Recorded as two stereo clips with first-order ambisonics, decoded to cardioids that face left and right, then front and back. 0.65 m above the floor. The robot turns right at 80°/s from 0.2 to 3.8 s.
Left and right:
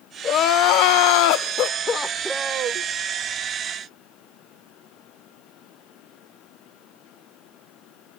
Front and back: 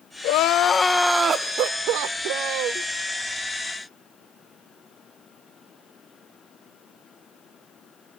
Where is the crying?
25° left, 0.5 m; by 2.9 s 125° right, 0.5 m.